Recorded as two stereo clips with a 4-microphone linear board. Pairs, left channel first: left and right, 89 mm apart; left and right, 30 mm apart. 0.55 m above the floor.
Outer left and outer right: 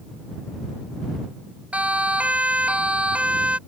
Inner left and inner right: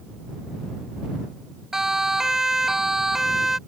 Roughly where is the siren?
Centre.